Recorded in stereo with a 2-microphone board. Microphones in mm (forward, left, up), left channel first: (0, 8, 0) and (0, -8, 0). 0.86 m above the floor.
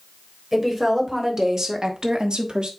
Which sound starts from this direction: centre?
A woman speaking, at 0.5 s.